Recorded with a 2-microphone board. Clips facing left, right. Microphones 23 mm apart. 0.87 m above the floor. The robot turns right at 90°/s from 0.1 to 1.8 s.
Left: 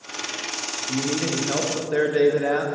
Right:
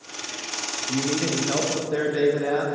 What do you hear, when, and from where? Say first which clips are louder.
0.9 s a man speaking: even; 35° right, 1.0 m; by 2.6 s 50° left, 1.0 m